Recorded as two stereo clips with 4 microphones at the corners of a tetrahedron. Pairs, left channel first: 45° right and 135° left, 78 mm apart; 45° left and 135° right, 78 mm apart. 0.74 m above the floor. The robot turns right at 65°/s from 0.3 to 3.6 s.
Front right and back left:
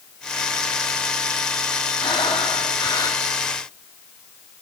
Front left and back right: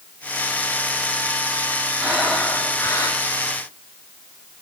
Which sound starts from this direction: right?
Breathing, at 2.0 s.